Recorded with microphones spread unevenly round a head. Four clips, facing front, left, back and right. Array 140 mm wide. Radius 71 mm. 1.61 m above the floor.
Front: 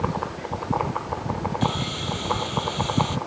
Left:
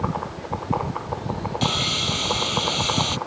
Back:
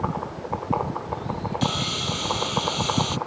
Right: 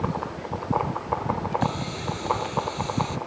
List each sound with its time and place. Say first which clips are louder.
1.6 s sawing: left 2 dB, front 1 dB; 90° left